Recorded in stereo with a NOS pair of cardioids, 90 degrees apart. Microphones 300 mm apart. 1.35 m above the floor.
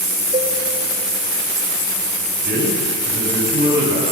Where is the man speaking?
35° right, 8.5 m.